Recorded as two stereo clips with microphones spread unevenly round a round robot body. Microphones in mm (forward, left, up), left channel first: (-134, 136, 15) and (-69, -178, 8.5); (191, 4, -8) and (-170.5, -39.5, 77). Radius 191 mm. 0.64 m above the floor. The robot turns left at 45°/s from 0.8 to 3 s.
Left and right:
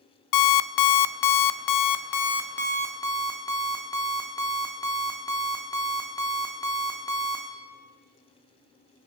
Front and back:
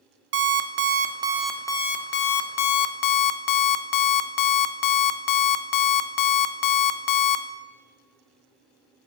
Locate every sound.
0.3 s an alarm clock: 120° left, 0.6 m; by 7.5 s 20° left, 0.6 m